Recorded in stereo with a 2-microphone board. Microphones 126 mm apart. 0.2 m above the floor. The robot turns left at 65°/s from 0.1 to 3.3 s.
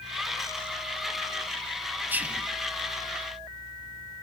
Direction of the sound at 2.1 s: 15° right (ahead or behind).